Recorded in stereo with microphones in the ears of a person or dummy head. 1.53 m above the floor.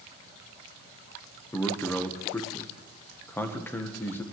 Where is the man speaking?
10° left (ahead or behind), 1.1 m.